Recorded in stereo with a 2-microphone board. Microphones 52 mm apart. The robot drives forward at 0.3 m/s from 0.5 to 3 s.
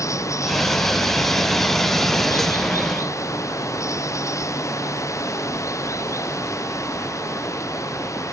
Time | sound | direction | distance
0.0 | running water | 70° left (ahead or behind) | ?